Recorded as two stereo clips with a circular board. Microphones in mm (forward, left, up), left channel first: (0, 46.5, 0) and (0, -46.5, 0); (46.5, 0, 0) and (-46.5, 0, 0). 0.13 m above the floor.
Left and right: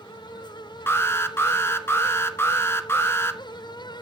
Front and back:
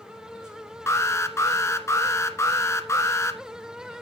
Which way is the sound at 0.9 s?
40° left.